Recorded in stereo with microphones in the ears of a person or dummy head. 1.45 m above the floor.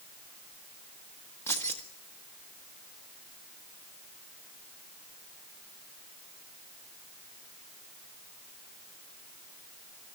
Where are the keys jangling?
15° left (ahead or behind), 1.6 m.